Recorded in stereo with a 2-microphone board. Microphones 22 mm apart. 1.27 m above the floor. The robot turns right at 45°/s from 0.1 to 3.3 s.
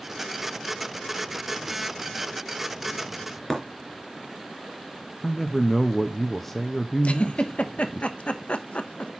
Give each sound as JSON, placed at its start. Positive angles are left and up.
{"t": 3.5, "sound": "breaking glass", "side_deg": 15, "distance_m": 3.0}
{"t": 5.2, "sound": "a man speaking", "side_deg": 10, "distance_m": 0.5}
{"t": 7.0, "sound": "a giggle", "side_deg": 65, "distance_m": 1.0}